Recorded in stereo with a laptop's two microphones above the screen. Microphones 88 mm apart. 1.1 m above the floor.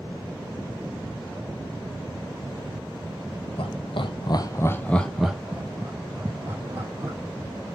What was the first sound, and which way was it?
Laughter, 75° left (ahead or behind).